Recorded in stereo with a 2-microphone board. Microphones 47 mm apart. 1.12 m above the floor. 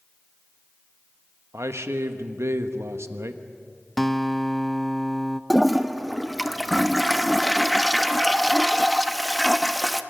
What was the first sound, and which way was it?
A man speaking, 85° right.